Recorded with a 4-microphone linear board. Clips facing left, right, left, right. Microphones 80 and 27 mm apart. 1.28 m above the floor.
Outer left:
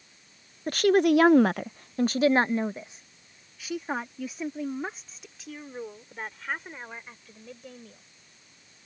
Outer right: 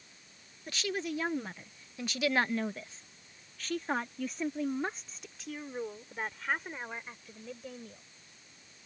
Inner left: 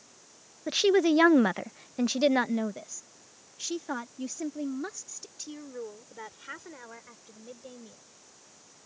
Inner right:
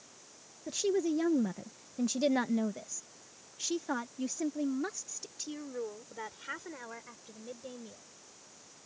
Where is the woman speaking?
50° left (ahead or behind); by 8.0 s 5° right (ahead or behind).